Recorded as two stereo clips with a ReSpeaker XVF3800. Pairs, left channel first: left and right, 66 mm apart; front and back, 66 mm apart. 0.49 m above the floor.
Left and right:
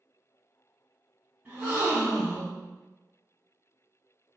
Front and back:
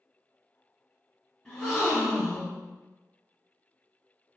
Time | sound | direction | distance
1.4 | a gasp | 70° right | 1.2 m